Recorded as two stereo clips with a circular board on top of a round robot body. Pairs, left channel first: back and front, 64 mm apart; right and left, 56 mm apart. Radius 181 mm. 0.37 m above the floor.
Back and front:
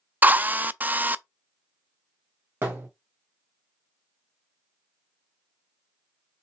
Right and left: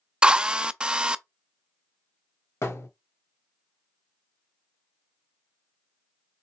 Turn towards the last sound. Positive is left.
turn(degrees=-55)